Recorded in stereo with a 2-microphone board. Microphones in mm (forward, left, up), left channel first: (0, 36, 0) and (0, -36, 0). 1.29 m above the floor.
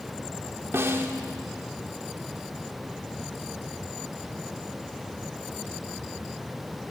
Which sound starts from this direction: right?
A snare drum, at 0.7 s.